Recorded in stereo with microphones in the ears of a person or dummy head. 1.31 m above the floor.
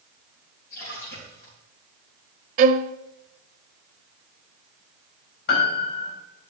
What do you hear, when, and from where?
0.7 s a splash: 65° left (ahead or behind), 5.5 m
2.6 s a violin: 50° right (ahead or behind), 0.6 m
5.5 s a piano: 70° left (ahead or behind), 2.5 m